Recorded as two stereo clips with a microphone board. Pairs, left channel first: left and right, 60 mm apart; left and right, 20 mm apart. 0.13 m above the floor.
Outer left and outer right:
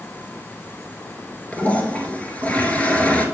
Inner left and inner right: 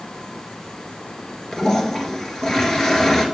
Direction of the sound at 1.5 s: 25° left (ahead or behind).